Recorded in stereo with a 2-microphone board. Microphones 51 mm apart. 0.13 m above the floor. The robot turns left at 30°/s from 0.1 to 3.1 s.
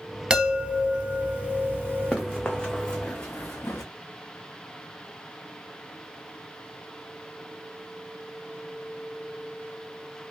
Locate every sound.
0.3 s a chime: 25° right, 0.8 m; by 2.2 s 80° right, 0.8 m
2.1 s running footsteps: 10° left (ahead or behind), 0.8 m; by 3.8 s 50° left (ahead or behind), 0.9 m